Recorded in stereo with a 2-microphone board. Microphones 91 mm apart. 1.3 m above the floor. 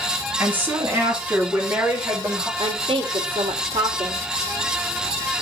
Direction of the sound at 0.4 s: 20° right (ahead or behind).